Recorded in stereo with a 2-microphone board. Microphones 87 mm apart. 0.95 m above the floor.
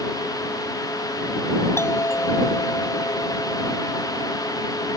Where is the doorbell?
30° left (ahead or behind).